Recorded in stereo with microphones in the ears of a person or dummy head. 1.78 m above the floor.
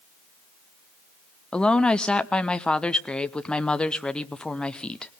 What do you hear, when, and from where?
1.5 s a woman speaking: 5° left (ahead or behind), 0.7 m